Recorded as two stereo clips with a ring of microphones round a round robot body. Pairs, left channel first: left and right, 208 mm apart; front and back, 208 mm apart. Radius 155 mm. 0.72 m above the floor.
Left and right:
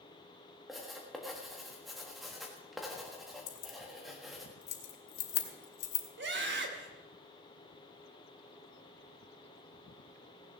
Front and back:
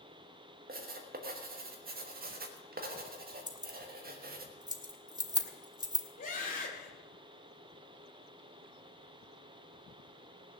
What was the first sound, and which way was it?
Writing, straight behind.